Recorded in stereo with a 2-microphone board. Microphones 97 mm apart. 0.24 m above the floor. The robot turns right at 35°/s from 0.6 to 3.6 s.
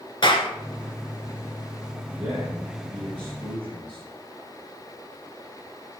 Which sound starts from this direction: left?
A clap, at 0.2 s.